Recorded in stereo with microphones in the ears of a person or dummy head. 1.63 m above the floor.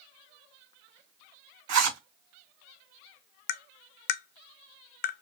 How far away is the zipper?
About 2.5 m.